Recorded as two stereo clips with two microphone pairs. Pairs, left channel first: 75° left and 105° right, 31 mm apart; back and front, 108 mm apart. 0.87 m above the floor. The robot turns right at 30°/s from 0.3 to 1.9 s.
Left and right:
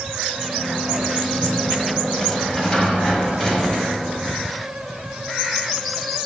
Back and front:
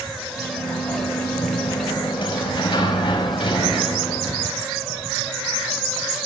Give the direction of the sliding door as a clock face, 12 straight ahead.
9 o'clock.